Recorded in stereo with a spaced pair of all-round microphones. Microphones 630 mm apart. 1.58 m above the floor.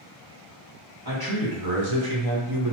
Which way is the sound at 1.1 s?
35° right (ahead or behind).